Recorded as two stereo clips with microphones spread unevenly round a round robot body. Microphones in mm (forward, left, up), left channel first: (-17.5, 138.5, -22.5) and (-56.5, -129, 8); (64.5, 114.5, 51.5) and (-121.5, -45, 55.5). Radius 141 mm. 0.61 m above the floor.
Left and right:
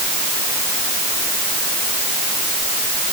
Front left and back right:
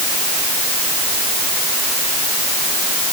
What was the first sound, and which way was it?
Only background noise.